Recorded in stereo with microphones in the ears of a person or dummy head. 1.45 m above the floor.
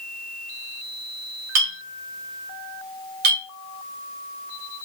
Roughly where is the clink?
Right.